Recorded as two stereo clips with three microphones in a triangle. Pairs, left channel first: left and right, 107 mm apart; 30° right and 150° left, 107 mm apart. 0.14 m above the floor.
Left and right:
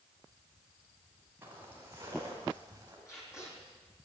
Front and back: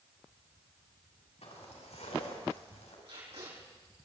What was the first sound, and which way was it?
Footsteps, 25° right.